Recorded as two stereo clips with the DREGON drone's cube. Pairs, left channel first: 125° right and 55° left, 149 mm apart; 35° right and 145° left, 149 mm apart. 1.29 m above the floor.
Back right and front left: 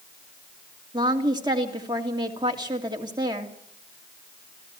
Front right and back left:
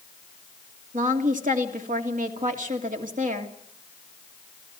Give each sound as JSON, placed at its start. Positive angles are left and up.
{"t": 0.9, "sound": "a woman speaking", "azimuth_deg": 115, "distance_m": 2.5}